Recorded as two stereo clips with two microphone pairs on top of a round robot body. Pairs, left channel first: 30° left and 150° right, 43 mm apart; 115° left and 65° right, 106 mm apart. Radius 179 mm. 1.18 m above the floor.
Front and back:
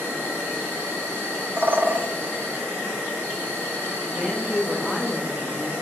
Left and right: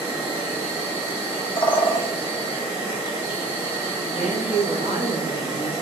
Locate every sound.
0.0 s an insect: 160° left, 1.5 m
1.6 s a bird: 160° left, 0.7 m
4.1 s a woman speaking: 130° left, 0.9 m